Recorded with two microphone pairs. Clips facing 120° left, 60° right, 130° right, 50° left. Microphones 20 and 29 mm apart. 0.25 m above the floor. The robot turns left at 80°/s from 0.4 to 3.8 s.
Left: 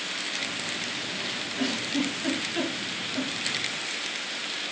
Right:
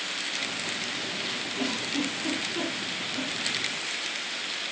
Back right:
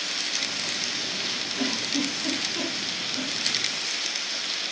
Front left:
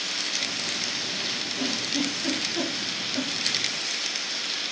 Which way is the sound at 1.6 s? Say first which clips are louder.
Left 2 dB, back right 1 dB; 170° right.